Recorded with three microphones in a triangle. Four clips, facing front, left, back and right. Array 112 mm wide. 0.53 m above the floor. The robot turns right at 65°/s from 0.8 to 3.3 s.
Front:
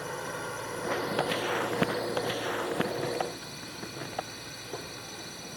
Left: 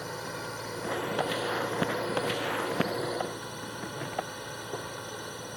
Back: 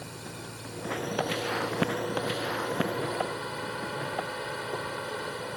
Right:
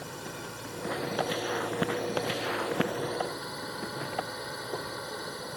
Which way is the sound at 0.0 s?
25° left.